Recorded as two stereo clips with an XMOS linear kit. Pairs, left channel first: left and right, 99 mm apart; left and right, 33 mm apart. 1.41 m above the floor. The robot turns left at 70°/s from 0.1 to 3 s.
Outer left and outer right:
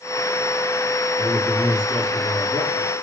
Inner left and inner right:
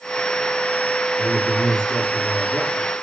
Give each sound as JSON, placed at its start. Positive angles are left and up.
{"t": 1.2, "sound": "a man speaking", "azimuth_deg": -165, "distance_m": 3.5}